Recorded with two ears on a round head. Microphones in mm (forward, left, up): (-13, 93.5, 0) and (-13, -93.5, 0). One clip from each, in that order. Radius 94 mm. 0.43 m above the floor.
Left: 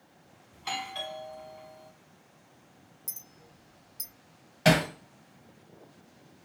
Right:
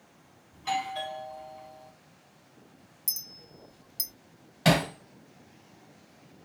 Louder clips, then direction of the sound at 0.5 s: Right 4 dB; 15° left (ahead or behind).